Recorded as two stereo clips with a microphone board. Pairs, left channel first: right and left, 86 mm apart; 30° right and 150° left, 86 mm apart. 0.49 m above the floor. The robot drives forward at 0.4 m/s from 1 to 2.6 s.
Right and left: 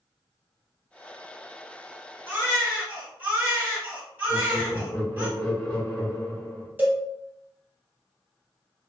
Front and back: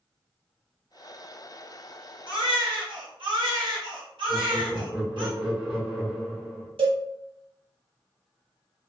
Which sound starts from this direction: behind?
A cowbell, at 6.8 s.